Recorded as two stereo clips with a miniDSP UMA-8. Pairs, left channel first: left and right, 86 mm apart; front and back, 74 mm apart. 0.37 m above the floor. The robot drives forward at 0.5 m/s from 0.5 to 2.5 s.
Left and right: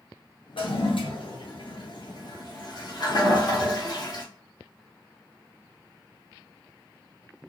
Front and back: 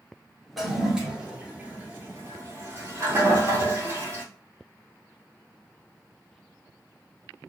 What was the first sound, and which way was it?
A toilet flushing, 90° left.